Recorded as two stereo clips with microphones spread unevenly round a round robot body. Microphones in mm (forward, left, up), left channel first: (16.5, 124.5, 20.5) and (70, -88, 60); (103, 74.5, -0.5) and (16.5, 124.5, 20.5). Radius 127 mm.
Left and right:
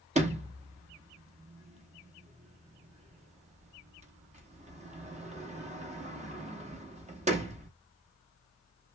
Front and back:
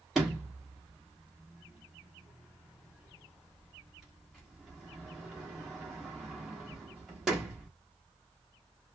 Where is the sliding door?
100° right, 1.2 m.